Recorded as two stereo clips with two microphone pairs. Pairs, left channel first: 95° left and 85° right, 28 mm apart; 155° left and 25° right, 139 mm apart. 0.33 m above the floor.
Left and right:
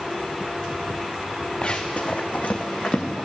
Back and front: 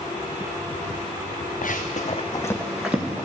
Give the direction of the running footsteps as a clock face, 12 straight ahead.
7 o'clock.